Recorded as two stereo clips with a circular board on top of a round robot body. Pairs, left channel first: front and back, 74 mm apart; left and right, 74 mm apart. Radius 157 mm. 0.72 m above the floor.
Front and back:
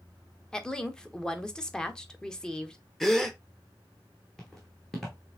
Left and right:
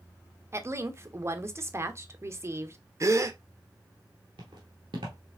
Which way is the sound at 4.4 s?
85° right.